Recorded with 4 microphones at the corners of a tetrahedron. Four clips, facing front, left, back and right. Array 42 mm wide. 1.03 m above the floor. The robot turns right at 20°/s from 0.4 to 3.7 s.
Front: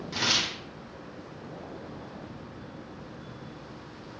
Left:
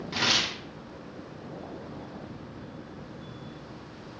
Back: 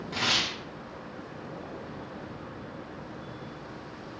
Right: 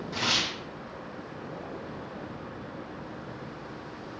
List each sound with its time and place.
0.1 s tearing paper: 105° left, 1.0 m; by 0.6 s 110° left, 1.0 m